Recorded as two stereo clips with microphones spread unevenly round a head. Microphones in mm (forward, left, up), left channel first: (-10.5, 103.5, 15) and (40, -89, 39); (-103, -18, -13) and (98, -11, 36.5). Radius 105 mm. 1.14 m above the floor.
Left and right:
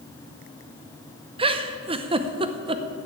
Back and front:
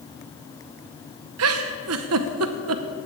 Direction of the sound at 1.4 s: 10° right.